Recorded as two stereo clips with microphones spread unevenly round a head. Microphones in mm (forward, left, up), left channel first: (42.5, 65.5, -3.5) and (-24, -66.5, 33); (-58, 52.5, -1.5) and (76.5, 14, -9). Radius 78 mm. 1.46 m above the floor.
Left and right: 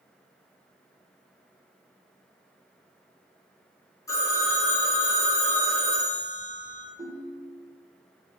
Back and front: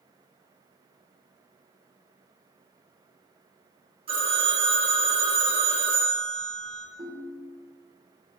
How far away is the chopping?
I don't hear chopping.